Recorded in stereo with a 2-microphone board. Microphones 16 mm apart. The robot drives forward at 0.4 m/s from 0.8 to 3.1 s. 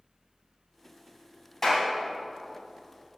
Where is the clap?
25° left (ahead or behind), 3 m.